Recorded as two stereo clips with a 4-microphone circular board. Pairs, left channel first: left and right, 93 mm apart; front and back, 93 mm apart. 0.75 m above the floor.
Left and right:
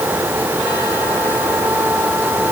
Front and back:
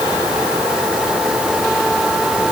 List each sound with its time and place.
Only background noise.